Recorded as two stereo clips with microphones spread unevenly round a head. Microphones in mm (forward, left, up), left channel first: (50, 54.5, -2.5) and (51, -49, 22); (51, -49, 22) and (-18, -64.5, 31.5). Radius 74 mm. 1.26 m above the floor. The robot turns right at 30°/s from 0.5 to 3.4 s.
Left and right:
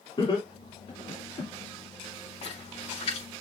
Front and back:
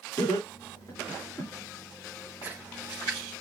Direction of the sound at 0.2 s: 50° left.